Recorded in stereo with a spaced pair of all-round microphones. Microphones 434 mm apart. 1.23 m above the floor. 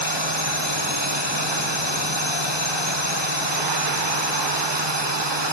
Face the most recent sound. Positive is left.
turn(degrees=-75)  # may be behind; listen again after turning